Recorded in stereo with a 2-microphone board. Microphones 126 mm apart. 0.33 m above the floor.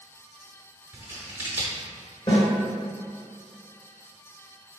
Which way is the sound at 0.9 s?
15° right (ahead or behind).